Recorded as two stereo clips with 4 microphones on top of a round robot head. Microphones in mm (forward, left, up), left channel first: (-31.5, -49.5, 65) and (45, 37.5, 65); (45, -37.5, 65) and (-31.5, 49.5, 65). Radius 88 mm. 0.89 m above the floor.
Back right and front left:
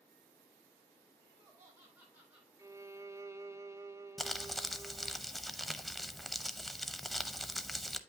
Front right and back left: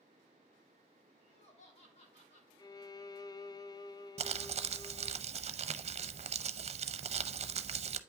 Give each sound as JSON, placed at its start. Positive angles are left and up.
{"t": 1.2, "sound": "laughter", "azimuth_deg": -15, "distance_m": 5.0}
{"t": 2.6, "sound": "a violin", "azimuth_deg": -10, "distance_m": 0.6}
{"t": 4.2, "sound": "crumpling", "azimuth_deg": 140, "distance_m": 0.7}